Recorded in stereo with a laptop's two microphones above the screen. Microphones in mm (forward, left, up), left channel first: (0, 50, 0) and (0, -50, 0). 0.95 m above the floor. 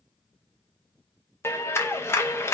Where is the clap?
30° left (ahead or behind), 0.6 m.